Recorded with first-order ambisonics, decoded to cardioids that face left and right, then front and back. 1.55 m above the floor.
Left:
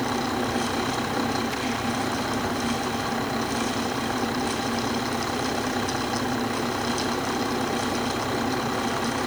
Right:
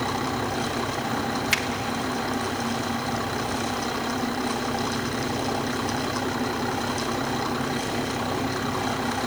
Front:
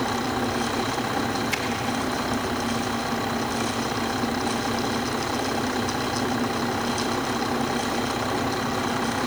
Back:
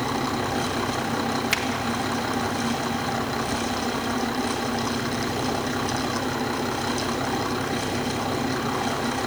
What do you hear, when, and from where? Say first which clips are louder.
1.5 s a finger snap: right 6 dB, back 3 dB; 125° right, 1.9 m